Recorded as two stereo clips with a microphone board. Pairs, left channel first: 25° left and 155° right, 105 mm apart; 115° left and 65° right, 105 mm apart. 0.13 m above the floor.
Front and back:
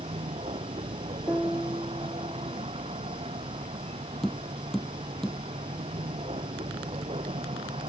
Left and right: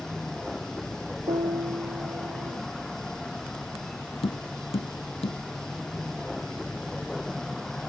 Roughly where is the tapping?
Left.